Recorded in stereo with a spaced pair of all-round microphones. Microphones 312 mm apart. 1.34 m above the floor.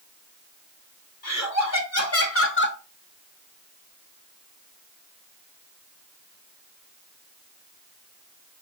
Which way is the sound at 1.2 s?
55° left (ahead or behind).